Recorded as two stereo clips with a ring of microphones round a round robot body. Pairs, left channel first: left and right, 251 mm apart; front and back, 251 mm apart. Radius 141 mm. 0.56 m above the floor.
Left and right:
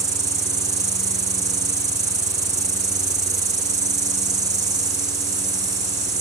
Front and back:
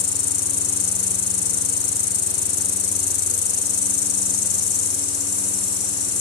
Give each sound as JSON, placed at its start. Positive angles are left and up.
{"t": 0.0, "sound": "an insect", "azimuth_deg": -20, "distance_m": 0.7}